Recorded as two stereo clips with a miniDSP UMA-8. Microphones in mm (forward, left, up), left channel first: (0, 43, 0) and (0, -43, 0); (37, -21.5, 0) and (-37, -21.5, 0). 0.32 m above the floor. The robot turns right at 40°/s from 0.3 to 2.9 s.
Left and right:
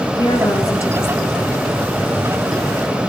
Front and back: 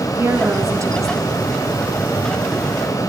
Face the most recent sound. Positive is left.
turn(degrees=-135)